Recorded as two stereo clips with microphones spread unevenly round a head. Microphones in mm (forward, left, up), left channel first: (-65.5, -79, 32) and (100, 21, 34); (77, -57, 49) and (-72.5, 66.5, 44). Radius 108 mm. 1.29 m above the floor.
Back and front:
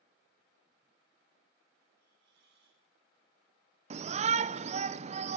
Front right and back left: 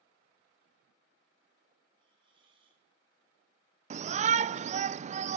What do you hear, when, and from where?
2.0 s a hiss: 75° left, 4.5 m
3.9 s a shout: 90° left, 0.6 m